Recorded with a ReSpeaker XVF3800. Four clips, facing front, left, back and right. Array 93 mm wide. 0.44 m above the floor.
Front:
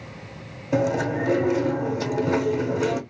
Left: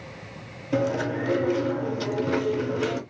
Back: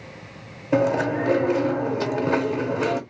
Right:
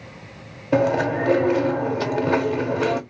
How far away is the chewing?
About 0.8 m.